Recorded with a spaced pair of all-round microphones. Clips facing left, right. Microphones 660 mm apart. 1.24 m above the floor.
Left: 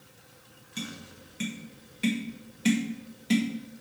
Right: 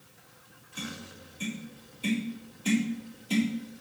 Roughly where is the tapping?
Left.